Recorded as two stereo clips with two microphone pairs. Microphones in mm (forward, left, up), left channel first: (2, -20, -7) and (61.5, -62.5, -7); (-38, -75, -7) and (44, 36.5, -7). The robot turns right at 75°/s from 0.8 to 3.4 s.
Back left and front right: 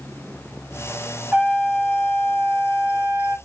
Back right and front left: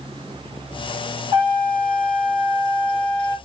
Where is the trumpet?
25° left, 2 m; by 3.4 s 175° left, 2 m.